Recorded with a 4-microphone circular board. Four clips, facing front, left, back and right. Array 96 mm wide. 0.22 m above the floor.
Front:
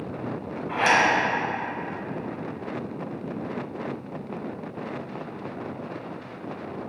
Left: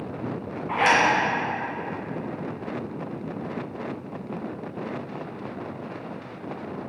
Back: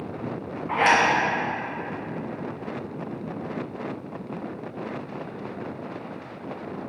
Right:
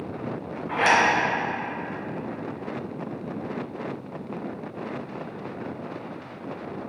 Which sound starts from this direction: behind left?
A zipper, at 0.7 s.